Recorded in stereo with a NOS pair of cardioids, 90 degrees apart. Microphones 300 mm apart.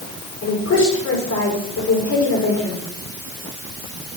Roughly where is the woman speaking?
Ahead left.